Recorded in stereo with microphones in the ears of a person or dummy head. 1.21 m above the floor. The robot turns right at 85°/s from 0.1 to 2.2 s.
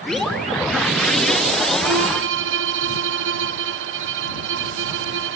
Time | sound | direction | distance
1.8 | a violin | 105° right | ?